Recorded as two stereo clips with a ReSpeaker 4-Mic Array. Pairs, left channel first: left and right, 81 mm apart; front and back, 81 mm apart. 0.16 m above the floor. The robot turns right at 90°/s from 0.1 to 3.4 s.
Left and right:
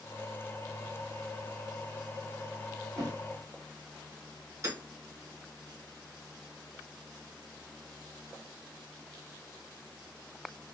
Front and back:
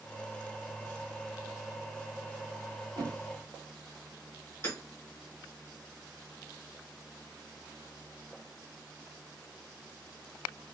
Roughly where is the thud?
Behind right.